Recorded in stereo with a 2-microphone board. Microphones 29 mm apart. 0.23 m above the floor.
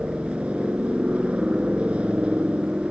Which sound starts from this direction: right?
A helicopter, at 0.0 s.